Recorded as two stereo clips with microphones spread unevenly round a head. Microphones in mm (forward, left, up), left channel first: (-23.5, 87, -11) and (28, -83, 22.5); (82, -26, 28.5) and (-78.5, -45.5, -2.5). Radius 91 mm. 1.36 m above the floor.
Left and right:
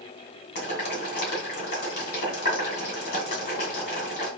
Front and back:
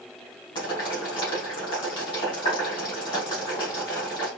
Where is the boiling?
75° left, 2.5 m.